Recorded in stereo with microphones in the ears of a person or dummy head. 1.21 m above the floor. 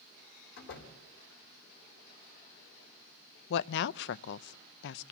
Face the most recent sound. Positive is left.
turn(degrees=60)  # may be behind; listen again after turning